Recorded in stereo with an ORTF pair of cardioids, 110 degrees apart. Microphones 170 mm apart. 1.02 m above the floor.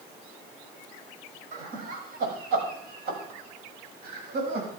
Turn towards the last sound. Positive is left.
turn(degrees=-70)